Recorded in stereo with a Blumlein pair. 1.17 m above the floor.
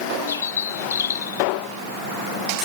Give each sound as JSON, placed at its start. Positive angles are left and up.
{"t": 0.3, "sound": "a bird", "azimuth_deg": 70}